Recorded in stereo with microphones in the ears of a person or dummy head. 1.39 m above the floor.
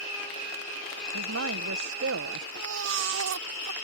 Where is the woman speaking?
70° right (ahead or behind).